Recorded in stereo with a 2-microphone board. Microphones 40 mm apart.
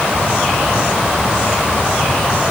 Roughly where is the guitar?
I don't hear a guitar.